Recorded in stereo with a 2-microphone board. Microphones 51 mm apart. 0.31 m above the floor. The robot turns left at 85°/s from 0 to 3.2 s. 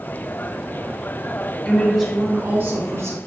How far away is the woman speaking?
About 3.5 m.